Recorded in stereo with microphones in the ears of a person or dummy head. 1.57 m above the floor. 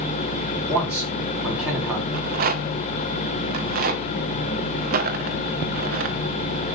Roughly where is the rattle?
Right.